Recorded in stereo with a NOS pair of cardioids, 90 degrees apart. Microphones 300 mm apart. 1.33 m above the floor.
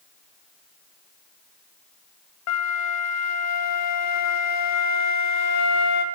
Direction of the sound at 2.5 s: 65° left.